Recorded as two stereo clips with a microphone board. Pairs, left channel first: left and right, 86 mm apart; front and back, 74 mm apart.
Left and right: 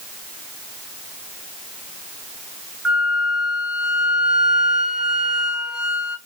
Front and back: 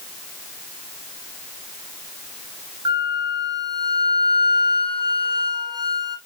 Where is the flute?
175° right, 0.7 m.